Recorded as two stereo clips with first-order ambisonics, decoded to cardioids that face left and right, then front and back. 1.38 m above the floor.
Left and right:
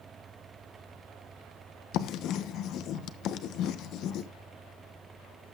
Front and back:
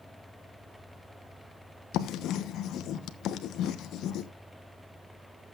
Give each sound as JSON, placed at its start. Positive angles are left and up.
{"t": 1.9, "sound": "writing", "azimuth_deg": 50, "distance_m": 1.1}